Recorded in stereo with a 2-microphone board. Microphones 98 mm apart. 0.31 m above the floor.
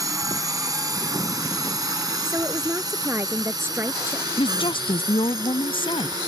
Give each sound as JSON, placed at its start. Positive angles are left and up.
{"t": 0.0, "sound": "a drone", "side_deg": -35}
{"t": 2.2, "sound": "a woman speaking", "side_deg": -25}
{"t": 4.4, "sound": "a woman speaking", "side_deg": 65}